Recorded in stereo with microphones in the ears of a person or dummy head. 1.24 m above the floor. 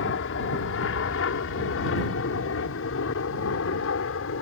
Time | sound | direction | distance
0.0 | an aircraft | 65° left (ahead or behind) | ?